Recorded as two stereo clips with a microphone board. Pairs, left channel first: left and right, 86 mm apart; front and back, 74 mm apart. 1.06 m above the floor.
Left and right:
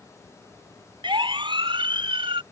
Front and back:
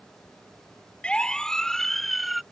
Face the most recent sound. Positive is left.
turn(degrees=-95)